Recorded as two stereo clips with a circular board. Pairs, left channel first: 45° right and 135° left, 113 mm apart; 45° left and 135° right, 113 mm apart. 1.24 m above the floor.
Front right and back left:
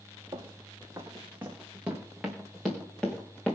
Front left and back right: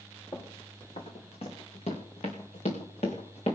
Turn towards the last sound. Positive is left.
turn(degrees=35)